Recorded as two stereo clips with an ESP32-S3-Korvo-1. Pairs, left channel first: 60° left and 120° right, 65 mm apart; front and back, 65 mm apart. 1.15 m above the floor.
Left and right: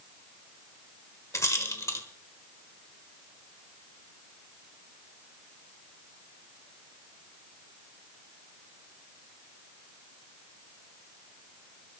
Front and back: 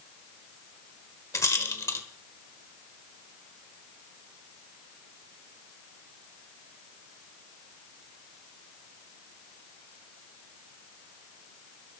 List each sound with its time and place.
1.3 s a rattle: 30° left, 1.5 m